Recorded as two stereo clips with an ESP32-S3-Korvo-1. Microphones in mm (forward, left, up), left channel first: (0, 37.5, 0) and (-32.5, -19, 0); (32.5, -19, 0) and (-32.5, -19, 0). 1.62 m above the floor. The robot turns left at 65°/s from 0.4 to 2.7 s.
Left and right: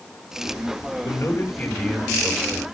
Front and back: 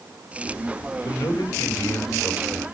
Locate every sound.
1.1 s a man speaking: 35° left, 6 m; by 2.6 s 70° right, 6 m